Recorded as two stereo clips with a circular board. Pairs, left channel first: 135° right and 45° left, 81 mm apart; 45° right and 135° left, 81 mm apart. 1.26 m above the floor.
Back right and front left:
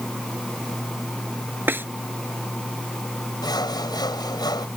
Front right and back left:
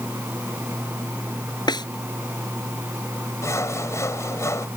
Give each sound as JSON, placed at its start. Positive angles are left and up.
{"t": 1.7, "sound": "a snare drum", "azimuth_deg": -20}
{"t": 3.4, "sound": "sawing", "azimuth_deg": -100}